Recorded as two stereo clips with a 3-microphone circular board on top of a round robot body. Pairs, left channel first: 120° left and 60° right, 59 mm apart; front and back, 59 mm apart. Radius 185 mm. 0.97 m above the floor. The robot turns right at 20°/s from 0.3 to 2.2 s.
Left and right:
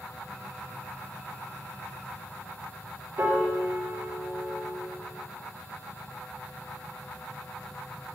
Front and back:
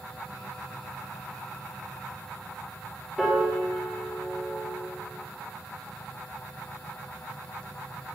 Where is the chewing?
I don't hear chewing.